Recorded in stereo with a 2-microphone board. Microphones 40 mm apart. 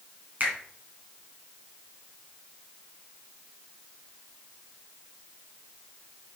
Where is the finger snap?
45° right (ahead or behind), 2.5 m.